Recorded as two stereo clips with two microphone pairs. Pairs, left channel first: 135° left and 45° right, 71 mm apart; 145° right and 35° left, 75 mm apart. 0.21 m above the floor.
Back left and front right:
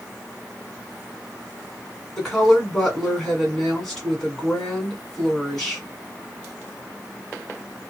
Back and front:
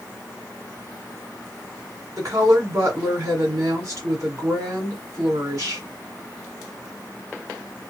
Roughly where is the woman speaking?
Ahead left.